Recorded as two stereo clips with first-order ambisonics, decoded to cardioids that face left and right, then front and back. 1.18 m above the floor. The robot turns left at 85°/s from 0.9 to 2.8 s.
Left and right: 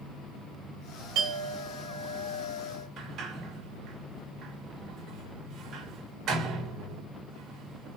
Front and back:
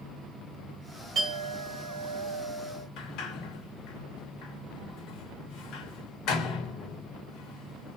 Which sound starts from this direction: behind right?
A clink, at 1.1 s.